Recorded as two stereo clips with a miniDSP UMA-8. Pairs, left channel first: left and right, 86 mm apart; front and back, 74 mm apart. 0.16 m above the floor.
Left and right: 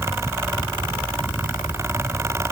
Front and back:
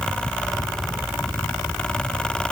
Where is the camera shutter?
No camera shutter in this recording.